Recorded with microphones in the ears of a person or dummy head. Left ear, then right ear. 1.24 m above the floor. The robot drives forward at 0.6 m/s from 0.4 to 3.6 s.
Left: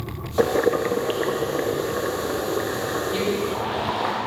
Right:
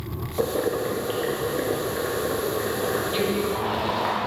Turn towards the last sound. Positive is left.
turn(degrees=-5)  # may be behind; listen again after turning